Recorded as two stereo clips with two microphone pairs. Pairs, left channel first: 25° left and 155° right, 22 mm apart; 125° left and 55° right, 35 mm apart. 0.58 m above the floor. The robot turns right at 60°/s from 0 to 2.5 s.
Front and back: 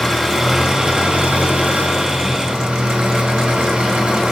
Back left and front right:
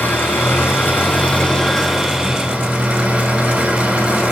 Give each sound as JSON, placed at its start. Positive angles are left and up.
{"t": 0.0, "sound": "an engine running", "azimuth_deg": 95, "distance_m": 10.0}